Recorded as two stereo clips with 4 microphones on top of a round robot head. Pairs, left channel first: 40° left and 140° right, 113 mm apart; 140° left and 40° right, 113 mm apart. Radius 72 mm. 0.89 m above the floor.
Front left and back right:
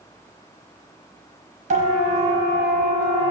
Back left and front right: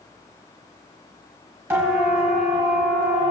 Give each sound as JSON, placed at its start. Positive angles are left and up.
{"t": 1.7, "sound": "a siren", "azimuth_deg": -115, "distance_m": 8.0}